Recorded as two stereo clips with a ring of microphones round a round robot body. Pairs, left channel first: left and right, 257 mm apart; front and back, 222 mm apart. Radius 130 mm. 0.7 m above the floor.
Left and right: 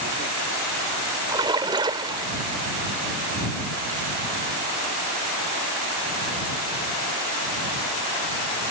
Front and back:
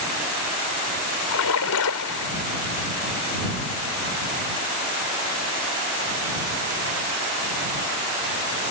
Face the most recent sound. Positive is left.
turn(degrees=-15)